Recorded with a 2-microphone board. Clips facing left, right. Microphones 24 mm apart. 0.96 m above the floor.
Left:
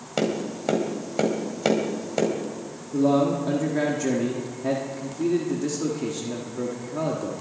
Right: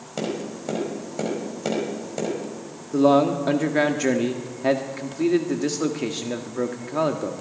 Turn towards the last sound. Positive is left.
turn(degrees=-40)  # may be behind; listen again after turning